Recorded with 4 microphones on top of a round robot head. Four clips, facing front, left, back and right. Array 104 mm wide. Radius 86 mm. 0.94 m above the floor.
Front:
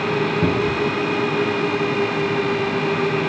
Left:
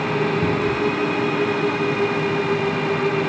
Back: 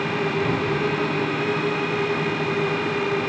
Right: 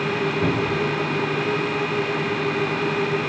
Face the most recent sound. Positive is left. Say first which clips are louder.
# left 2 dB, front 3 dB
turn(degrees=10)